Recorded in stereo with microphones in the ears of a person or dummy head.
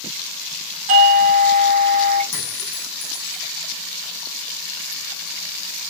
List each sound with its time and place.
0.9 s a doorbell: 45° right (ahead or behind), 1.2 m
2.3 s a clink: 65° left (ahead or behind), 1.1 m